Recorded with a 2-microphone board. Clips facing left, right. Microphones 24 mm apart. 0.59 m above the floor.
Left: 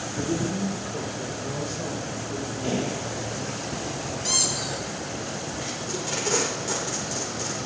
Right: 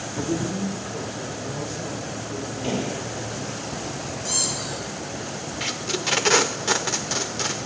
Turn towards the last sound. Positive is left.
turn(degrees=-65)  # may be behind; listen again after turning